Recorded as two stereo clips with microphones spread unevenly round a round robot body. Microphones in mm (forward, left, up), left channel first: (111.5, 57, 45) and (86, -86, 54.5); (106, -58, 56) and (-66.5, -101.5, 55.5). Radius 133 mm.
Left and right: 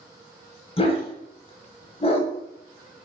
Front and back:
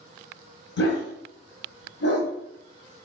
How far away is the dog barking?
About 1.1 m.